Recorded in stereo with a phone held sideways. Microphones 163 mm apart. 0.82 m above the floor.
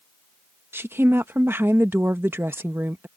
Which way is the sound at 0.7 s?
15° right (ahead or behind).